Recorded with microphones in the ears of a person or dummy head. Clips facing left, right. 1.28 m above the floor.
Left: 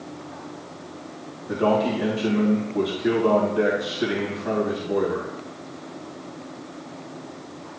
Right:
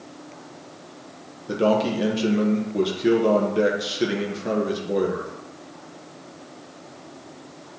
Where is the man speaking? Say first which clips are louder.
Right 1 dB; 40° right (ahead or behind), 1.2 m.